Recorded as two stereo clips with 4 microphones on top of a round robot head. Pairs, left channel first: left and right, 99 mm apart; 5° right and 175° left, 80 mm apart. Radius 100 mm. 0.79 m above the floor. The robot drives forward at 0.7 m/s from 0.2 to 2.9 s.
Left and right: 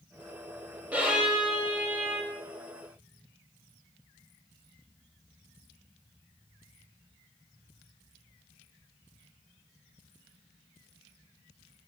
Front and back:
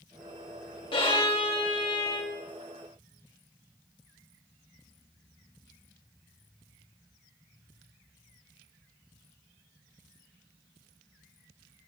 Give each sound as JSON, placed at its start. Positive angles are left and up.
{"t": 0.9, "sound": "a violin", "azimuth_deg": -10, "distance_m": 3.0}